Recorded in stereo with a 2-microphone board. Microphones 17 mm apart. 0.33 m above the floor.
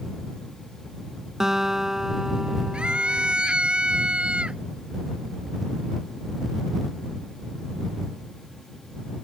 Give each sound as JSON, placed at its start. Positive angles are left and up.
{"t": 1.4, "sound": "a guitar", "side_deg": -30}
{"t": 2.7, "sound": "a scream", "side_deg": -75}